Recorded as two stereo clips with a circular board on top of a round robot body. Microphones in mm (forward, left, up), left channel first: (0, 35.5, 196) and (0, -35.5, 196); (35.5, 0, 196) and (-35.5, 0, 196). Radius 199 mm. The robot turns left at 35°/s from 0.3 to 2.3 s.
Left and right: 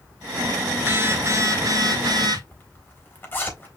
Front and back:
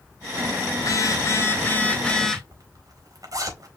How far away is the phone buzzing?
About 1.8 m.